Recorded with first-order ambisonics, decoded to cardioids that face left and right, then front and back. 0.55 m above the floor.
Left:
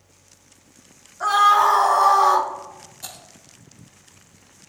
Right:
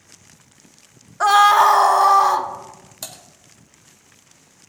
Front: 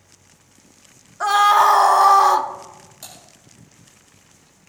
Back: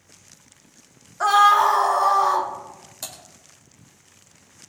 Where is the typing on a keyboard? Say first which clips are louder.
Right 3 dB, back 4 dB; 115° right, 2.5 m.